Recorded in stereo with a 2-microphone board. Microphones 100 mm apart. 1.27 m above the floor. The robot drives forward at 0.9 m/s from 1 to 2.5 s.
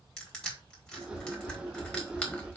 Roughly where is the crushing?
Centre.